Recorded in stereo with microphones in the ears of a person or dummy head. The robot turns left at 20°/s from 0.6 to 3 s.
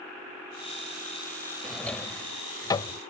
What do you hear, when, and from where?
1.6 s a drawer: centre (ahead or behind); by 3.0 s 25° left (ahead or behind)